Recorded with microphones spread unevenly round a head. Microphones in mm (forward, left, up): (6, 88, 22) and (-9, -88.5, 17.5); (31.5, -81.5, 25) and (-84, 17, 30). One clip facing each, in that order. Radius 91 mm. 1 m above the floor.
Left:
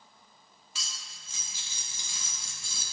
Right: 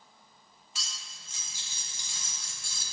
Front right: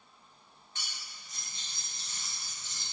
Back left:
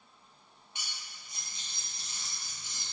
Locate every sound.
0.8 s cutlery clinking: 60° left, 1.0 m